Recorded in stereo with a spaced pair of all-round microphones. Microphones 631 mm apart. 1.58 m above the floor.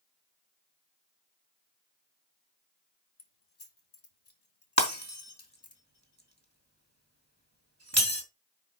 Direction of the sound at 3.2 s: 70° left (ahead or behind).